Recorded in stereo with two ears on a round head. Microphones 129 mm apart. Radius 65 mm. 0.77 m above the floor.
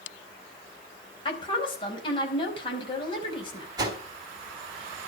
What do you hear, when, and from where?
1.2 s a woman speaking: 35° left (ahead or behind), 4.5 m
3.8 s a whoosh: 30° right (ahead or behind), 3.5 m